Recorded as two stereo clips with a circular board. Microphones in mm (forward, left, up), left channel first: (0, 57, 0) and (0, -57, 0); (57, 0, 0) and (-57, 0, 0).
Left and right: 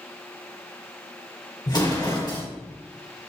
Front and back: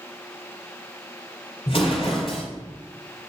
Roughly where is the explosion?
Ahead left.